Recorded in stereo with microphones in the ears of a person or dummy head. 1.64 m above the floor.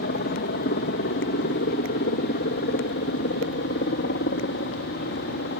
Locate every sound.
0.0 s a helicopter: 50° left (ahead or behind)